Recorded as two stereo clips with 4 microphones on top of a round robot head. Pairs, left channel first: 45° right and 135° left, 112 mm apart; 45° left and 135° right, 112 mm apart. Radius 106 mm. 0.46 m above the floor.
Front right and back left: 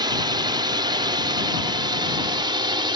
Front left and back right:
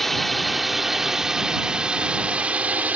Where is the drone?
135° left; by 3.0 s 155° left.